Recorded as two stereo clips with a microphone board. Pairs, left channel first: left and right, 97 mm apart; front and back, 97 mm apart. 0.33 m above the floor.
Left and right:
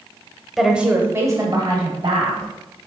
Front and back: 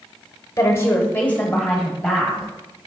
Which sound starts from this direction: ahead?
A woman speaking, at 0.6 s.